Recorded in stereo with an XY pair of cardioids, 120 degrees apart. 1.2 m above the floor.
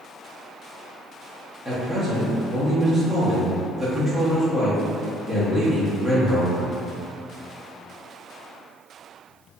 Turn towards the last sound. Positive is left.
turn(degrees=-25)